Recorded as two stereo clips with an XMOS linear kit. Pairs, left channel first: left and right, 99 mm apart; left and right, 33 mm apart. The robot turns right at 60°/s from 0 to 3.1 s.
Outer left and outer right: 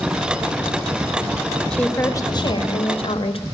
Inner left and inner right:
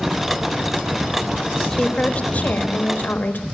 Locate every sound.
1.7 s a woman speaking: 10° left, 1.0 m; by 3.5 s 95° left, 1.0 m